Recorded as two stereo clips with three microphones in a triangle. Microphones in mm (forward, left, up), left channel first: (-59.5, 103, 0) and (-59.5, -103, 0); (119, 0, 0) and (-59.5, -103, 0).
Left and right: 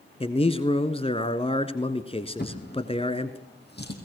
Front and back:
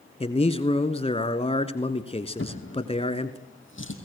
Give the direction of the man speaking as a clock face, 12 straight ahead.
10 o'clock.